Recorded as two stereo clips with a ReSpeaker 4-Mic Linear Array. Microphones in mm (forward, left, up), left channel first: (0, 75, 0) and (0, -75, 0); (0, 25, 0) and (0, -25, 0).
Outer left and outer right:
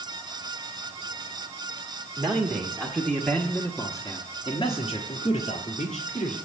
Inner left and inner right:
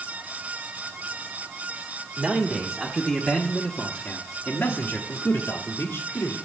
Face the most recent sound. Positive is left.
turn(degrees=60)  # may be behind; listen again after turning